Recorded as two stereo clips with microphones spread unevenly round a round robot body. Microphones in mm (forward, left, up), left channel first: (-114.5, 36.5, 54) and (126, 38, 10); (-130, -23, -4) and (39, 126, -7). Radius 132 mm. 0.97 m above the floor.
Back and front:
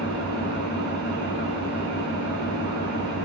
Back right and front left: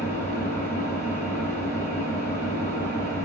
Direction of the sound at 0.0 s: 75° right.